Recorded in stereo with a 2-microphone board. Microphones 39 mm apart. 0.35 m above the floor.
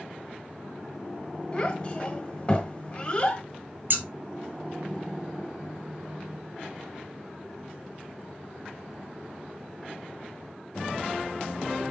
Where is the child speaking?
30° left (ahead or behind), 1.2 m.